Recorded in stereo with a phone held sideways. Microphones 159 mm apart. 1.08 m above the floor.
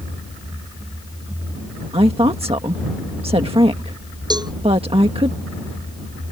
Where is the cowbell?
30° right (ahead or behind).